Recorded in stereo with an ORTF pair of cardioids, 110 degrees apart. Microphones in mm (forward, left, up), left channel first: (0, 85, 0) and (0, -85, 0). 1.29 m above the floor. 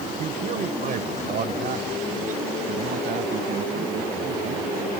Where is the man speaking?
45° right; by 4.9 s 55° right.